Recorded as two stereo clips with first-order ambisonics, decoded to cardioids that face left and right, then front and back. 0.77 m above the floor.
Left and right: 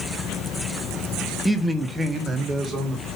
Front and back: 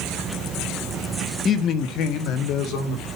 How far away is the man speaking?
About 0.8 m.